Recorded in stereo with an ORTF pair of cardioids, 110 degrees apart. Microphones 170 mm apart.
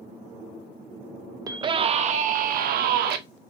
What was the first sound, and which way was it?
A scream, 25° right.